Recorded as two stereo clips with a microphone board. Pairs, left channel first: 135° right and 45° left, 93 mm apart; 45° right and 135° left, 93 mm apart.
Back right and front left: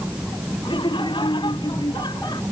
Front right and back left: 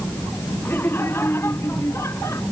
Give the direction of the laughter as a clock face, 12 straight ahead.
4 o'clock.